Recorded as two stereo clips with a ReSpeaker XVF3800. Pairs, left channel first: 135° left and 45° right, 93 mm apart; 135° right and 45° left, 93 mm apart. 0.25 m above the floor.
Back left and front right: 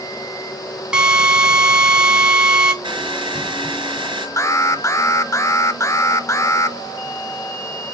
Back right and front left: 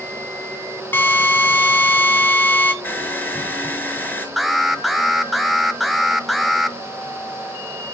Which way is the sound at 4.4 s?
135° left.